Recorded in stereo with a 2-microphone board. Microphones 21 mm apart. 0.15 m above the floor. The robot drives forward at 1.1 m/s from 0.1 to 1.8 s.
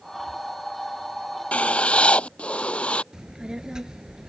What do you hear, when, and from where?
1.5 s writing: 80° left; by 3.0 s 65° left (ahead or behind)
3.1 s a child speaking: 35° right (ahead or behind)